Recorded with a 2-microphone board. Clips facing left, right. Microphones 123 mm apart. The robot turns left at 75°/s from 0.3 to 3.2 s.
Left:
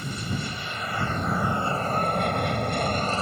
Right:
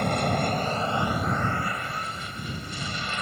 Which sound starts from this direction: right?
An aircraft, at 0.0 s.